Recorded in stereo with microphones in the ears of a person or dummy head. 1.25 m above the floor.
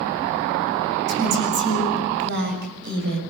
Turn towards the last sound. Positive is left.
turn(degrees=-60)  # may be behind; listen again after turning